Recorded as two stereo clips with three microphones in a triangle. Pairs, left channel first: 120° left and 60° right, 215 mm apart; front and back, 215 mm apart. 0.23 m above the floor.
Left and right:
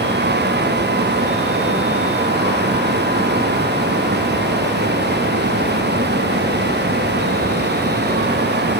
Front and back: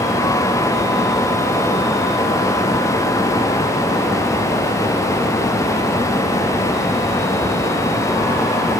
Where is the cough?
No cough in this recording.